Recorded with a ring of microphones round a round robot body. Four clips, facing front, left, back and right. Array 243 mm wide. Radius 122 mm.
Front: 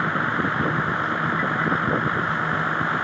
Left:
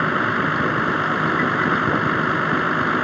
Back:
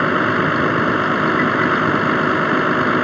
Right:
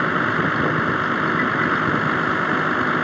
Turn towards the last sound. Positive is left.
turn(degrees=-175)